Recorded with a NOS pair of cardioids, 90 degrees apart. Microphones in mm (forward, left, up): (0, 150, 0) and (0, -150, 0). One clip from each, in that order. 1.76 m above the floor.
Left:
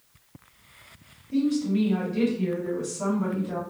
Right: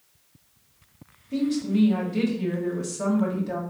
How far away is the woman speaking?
About 1.9 m.